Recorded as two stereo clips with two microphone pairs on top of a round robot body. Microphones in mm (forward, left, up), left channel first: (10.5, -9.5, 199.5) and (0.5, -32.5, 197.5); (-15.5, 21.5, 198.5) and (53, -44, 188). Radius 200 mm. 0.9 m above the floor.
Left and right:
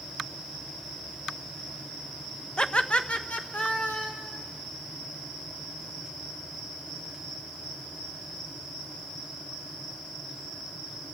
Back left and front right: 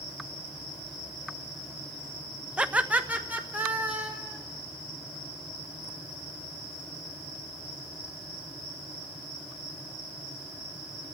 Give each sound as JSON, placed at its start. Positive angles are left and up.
{"t": 2.6, "sound": "laughter", "azimuth_deg": 20, "distance_m": 0.8}